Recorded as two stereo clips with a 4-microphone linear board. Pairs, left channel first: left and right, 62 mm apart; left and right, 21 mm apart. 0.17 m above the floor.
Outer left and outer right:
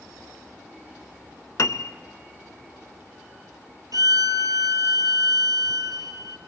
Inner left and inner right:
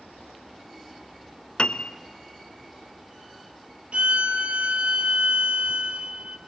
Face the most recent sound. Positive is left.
turn(degrees=-75)  # may be behind; listen again after turning